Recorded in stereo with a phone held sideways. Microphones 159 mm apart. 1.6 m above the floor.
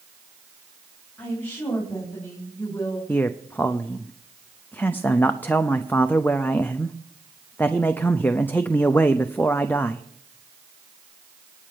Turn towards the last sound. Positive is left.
turn(degrees=10)  # may be behind; listen again after turning